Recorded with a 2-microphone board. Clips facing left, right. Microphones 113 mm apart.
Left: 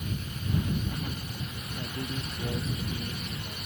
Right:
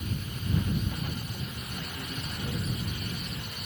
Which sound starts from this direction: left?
A man speaking, at 1.8 s.